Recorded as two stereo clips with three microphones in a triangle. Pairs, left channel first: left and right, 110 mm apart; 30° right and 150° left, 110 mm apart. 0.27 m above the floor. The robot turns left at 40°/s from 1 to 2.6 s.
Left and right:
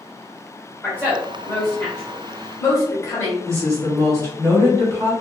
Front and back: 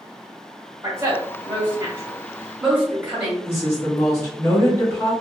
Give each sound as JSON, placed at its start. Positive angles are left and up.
{"t": 0.8, "sound": "a woman speaking", "azimuth_deg": 150, "distance_m": 1.2}
{"t": 3.5, "sound": "a woman speaking", "azimuth_deg": -65, "distance_m": 1.3}